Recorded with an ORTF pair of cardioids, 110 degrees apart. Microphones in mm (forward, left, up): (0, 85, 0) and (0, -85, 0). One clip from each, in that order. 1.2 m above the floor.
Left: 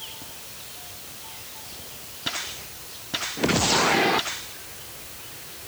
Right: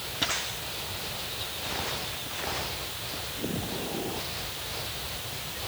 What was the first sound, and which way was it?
Only background noise.